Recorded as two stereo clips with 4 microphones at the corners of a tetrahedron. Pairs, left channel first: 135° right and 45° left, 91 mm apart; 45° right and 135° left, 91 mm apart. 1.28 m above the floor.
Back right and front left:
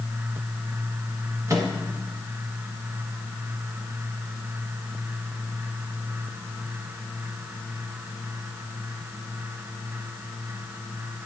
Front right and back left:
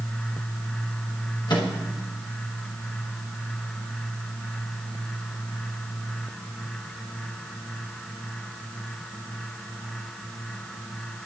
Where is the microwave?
10° right, 1.1 m.